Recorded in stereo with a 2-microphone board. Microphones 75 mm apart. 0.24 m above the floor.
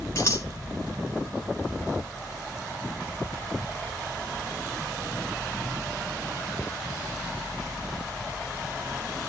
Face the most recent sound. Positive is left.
turn(degrees=40)  # may be behind; listen again after turning